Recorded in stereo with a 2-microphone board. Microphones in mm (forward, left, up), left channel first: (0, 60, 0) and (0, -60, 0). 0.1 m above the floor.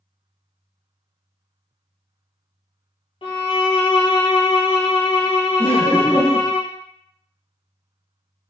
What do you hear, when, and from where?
3.2 s a violin: 50° left (ahead or behind), 1.1 m
5.6 s laughter: 20° left (ahead or behind), 1.2 m